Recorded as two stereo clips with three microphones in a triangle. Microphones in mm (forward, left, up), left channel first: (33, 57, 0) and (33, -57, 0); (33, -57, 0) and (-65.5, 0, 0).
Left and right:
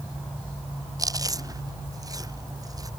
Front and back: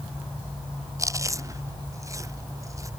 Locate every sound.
1.0 s chewing: 145° right